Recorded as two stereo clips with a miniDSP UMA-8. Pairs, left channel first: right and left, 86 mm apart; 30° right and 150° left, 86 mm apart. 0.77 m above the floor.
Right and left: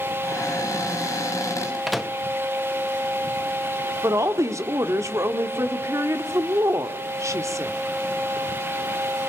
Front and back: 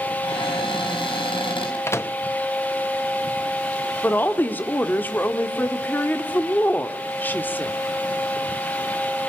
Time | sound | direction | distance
0.2 | a cupboard door | 40° right | 6 m
1.9 | a microwave | straight ahead | 0.8 m
4.0 | a woman speaking | 40° left | 1.5 m